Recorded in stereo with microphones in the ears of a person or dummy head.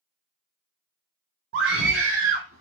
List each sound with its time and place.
1.5 s a scream: 60° right (ahead or behind), 0.6 m; by 2.6 s 85° right, 1.5 m